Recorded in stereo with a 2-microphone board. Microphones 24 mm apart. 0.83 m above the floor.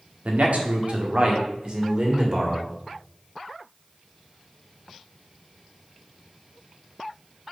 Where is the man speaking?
75° right (ahead or behind), 1.6 m; by 2.7 s 30° right (ahead or behind), 2.5 m.